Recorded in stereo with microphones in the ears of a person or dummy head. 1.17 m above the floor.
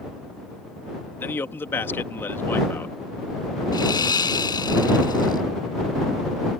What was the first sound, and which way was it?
A man speaking, 15° left (ahead or behind).